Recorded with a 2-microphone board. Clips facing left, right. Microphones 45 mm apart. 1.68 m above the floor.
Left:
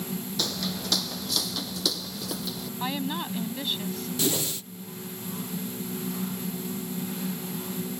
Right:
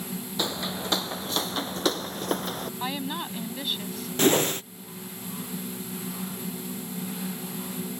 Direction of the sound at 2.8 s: Centre (ahead or behind).